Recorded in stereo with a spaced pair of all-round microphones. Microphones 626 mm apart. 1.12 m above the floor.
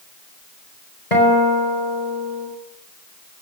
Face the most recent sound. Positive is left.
turn(degrees=80)